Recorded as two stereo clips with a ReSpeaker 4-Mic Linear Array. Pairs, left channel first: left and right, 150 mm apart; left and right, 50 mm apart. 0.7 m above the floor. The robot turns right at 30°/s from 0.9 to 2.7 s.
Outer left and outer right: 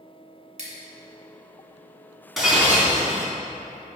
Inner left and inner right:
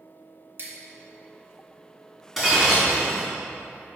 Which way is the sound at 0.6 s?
55° right (ahead or behind).